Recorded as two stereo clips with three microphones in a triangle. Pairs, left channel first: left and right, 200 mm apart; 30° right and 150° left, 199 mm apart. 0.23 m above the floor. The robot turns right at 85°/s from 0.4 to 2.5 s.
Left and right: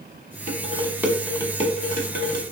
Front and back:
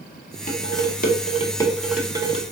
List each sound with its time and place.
0.5 s dishes clattering: 60° right, 1.1 m; by 2.4 s 105° left, 1.1 m